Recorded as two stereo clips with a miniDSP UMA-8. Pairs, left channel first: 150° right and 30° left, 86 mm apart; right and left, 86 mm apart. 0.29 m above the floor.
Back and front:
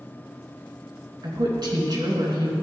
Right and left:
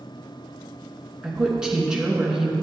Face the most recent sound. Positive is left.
turn(degrees=10)